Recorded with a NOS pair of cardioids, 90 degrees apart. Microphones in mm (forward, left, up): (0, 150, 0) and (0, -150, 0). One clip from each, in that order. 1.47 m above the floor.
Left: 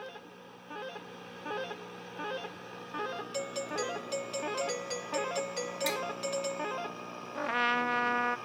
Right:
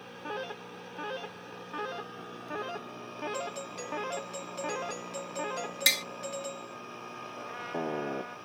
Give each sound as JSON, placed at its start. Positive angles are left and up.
{"t": 3.3, "sound": "a doorbell", "azimuth_deg": 30}
{"t": 5.9, "sound": "tapping", "azimuth_deg": -50}
{"t": 7.3, "sound": "a trumpet", "azimuth_deg": 70}